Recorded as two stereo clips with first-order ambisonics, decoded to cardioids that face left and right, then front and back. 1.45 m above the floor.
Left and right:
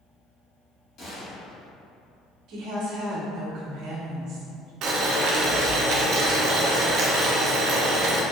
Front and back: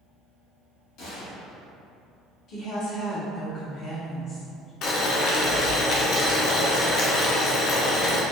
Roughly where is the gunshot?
Ahead left.